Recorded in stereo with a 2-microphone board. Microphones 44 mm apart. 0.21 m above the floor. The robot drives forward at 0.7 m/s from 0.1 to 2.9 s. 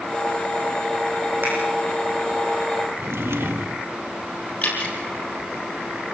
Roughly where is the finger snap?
Right.